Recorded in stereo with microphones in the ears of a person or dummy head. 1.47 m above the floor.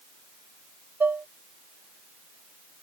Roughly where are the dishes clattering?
Centre.